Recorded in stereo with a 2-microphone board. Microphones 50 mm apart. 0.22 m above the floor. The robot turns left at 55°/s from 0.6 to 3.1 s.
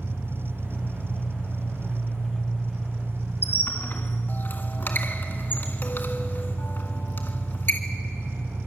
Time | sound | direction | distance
0.0 | an engine running | 120° left | 4 m
3.4 | a squeak | 45° left (ahead or behind) | 1.8 m